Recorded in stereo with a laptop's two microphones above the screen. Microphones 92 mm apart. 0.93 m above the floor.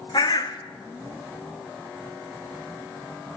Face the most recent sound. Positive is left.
turn(degrees=55)  # may be behind; listen again after turning